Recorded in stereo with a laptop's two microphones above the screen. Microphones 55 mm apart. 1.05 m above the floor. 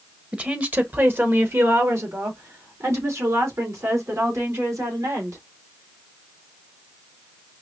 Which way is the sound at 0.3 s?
20° right (ahead or behind).